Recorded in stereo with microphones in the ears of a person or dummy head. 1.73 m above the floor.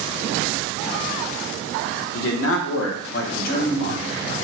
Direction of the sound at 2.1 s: 80° left.